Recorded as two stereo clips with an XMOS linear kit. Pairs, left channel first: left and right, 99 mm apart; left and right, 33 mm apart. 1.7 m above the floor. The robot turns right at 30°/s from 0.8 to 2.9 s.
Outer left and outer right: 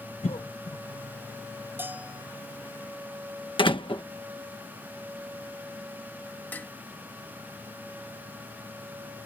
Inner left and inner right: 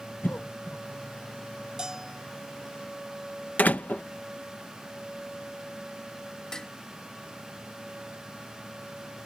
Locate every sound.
0.2 s a cough: 80° left
1.8 s a bell: 20° right (ahead or behind); by 2.2 s 10° right (ahead or behind)
3.6 s a door slam: 55° left (ahead or behind)
6.5 s dishes clattering: 20° left (ahead or behind)